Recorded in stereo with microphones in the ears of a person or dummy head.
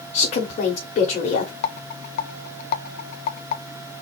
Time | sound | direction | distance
0.1 | a woman speaking | 40° left (ahead or behind) | 1.2 m
1.6 | a rattle | 50° left (ahead or behind) | 0.7 m